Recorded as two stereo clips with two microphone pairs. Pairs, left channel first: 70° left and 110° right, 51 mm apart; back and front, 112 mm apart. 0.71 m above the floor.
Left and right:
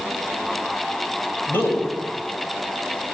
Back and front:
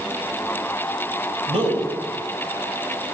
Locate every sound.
1.5 s a man speaking: 20° left, 4 m